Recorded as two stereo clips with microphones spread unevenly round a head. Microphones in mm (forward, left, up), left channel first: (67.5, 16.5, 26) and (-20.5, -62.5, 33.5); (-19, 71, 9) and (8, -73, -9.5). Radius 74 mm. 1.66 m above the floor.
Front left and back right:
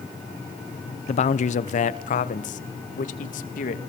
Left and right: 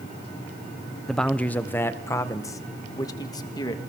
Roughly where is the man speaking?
Ahead.